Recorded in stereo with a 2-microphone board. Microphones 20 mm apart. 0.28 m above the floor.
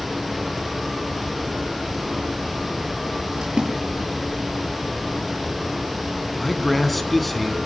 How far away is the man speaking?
About 3 m.